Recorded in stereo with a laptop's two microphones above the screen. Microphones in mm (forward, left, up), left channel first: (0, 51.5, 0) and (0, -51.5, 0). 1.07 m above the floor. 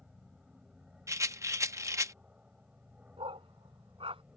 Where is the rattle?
30° right (ahead or behind).